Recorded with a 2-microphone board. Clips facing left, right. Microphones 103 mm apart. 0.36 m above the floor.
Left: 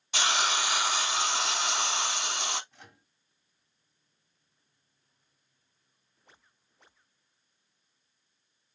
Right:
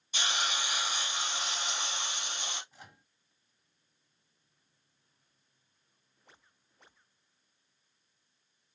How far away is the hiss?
About 0.6 m.